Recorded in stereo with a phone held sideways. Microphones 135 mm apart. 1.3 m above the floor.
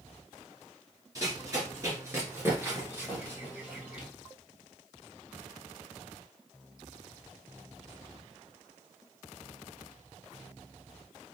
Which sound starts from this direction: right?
Running footsteps, at 1.1 s.